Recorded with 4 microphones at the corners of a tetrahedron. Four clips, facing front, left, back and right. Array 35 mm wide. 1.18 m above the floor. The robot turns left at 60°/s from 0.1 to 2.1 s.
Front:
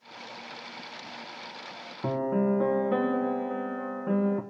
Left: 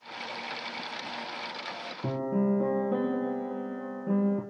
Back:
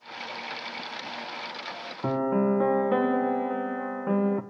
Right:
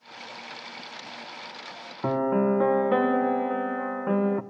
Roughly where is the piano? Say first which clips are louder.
Right 5 dB, back 2 dB; right.